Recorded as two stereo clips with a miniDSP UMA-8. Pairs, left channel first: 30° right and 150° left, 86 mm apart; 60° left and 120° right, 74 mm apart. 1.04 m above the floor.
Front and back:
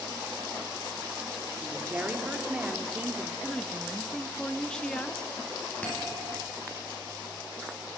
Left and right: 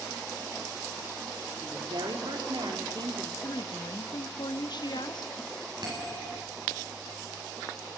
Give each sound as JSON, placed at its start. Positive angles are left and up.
{"t": 1.6, "sound": "a woman speaking", "azimuth_deg": -135, "distance_m": 2.0}
{"t": 3.4, "sound": "a woman speaking", "azimuth_deg": 50, "distance_m": 1.4}
{"t": 5.8, "sound": "a bell", "azimuth_deg": -105, "distance_m": 9.5}